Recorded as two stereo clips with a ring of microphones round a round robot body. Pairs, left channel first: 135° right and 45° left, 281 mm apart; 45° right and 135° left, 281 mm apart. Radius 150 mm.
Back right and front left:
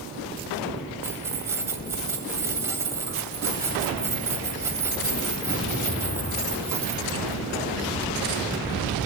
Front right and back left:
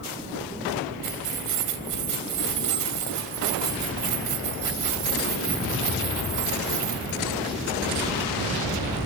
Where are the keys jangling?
125° left, 2 m.